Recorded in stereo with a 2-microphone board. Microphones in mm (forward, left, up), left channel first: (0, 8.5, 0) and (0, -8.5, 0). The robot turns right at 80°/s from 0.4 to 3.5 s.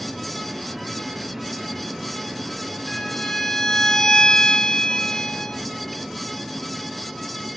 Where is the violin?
40° left, 0.6 m; by 5.6 s 90° left, 0.6 m.